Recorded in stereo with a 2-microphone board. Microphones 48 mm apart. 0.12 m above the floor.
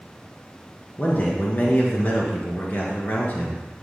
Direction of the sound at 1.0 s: 40° left (ahead or behind).